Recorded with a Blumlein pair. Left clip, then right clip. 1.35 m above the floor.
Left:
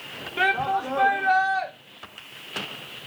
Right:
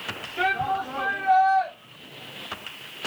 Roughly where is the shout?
Ahead left.